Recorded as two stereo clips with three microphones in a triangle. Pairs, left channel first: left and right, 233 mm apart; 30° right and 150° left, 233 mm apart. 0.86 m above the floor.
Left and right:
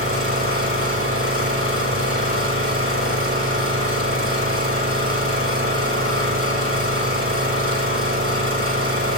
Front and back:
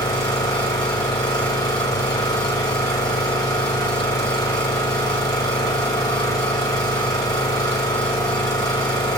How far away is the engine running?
About 2.5 m.